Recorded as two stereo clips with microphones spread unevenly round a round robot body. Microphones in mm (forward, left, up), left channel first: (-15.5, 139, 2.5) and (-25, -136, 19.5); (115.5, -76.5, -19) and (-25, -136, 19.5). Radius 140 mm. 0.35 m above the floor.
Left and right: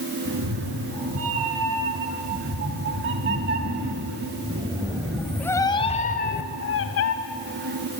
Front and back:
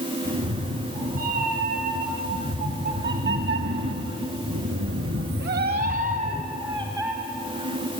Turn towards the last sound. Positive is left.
turn(degrees=115)